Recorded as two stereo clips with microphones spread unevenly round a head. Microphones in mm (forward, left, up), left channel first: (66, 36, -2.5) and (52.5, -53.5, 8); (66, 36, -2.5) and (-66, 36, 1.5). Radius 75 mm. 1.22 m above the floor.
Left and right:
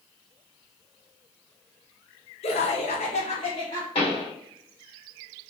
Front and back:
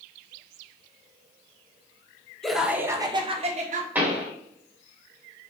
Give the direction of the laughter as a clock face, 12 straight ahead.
9 o'clock.